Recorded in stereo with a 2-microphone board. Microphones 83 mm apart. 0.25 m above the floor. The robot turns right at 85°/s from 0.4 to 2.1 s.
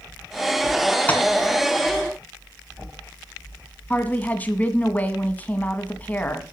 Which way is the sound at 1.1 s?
20° left (ahead or behind).